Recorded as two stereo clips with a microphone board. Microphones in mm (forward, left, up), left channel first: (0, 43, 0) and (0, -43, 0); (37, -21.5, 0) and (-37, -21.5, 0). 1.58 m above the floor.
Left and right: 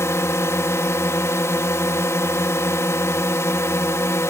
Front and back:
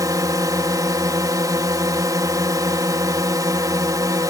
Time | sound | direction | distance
0.0 | a drone | 145° left | ?